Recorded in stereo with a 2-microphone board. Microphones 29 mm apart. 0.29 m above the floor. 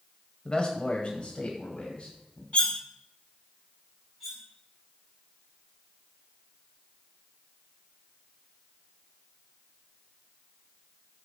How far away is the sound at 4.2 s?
About 3 m.